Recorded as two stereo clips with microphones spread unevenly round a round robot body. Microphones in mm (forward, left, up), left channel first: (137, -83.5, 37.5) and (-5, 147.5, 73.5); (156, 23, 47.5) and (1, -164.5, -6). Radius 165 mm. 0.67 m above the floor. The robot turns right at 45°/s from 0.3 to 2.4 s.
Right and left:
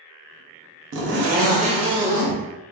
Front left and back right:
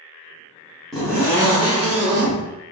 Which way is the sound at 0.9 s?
150° left.